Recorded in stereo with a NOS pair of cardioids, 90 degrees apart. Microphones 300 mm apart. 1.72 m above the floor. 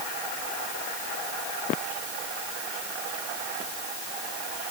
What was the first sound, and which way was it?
Only background noise.